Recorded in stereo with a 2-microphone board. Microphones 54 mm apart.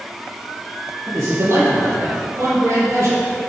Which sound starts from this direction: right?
A man speaking, at 1.1 s.